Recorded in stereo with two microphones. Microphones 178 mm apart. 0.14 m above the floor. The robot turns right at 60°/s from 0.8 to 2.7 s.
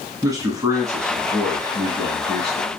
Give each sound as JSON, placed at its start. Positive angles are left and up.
{"t": 0.2, "sound": "a man speaking", "side_deg": -20, "distance_m": 1.2}